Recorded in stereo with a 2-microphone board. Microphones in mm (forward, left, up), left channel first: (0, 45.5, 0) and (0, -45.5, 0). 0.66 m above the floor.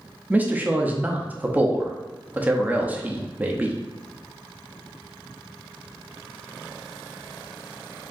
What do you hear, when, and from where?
0.3 s a man speaking: 20° right (ahead or behind), 0.5 m